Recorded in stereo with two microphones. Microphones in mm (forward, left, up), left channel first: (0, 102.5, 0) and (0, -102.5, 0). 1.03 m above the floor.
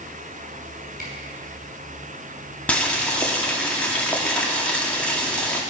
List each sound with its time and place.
1.0 s a camera shutter: 45° right (ahead or behind), 5.5 m
2.7 s boiling: 5° left (ahead or behind), 2 m